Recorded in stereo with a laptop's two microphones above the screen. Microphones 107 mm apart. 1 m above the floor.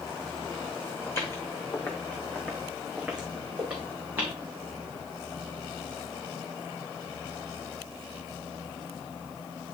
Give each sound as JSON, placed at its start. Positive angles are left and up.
{"t": 1.1, "sound": "footsteps", "side_deg": 25, "distance_m": 3.0}